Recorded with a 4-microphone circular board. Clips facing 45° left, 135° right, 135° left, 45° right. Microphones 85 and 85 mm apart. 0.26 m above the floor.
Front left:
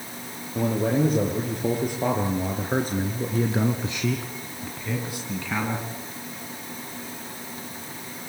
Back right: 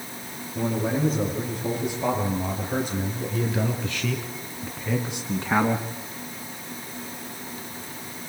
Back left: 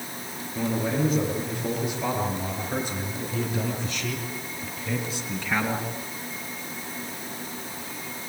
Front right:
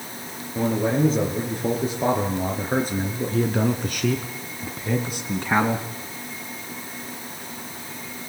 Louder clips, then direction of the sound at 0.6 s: Front left 3 dB, front right 5 dB; 15° left.